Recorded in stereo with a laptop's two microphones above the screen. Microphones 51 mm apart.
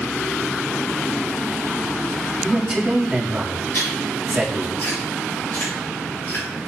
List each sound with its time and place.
2.4 s a man speaking: 25° right (ahead or behind), 1.9 m
3.7 s chewing: 50° left (ahead or behind), 3 m